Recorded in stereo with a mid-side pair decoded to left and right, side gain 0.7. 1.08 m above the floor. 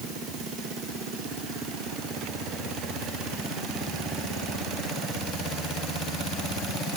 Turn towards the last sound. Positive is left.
No sound to turn to.